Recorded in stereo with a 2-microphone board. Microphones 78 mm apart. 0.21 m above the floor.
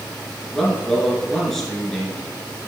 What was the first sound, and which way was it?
A man speaking, 5° left (ahead or behind).